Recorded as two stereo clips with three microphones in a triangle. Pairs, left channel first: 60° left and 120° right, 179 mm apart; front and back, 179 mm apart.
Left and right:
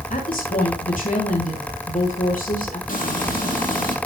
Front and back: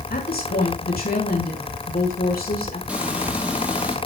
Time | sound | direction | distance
0.1 | a woman speaking | 25° left | 3 m
2.9 | frying | 95° left | 3.5 m